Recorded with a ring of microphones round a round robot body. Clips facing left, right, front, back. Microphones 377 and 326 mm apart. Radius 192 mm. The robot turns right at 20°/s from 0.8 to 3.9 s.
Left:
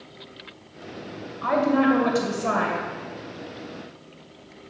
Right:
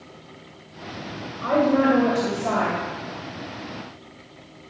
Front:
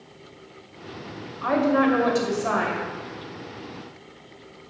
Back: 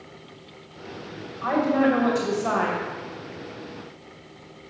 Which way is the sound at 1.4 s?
25° left.